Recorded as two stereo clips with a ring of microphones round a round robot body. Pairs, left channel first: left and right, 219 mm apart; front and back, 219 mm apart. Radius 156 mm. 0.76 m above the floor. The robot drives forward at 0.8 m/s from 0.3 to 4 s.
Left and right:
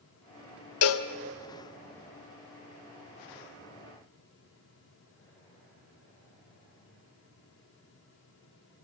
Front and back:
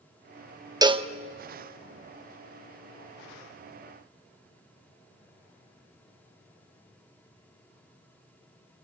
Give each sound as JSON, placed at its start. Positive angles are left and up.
{"t": 0.8, "sound": "a cowbell", "azimuth_deg": 105, "distance_m": 1.0}